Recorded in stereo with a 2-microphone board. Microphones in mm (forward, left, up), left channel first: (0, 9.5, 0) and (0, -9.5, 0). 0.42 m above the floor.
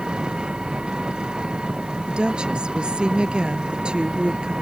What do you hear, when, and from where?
0.0 s an engine running: 55° right (ahead or behind)
2.1 s a woman speaking: 60° right (ahead or behind)